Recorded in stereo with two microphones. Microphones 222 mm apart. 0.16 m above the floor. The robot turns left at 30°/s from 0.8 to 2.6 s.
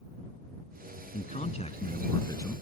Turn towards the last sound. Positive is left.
turn(degrees=20)